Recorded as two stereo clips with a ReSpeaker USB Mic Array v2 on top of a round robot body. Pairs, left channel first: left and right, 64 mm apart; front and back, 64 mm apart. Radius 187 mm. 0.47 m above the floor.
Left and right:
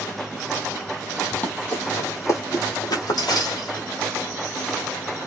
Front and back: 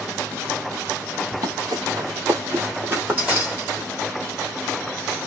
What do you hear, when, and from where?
1.3 s running footsteps: 165° left, 1.0 m; by 3.9 s 105° left, 1.5 m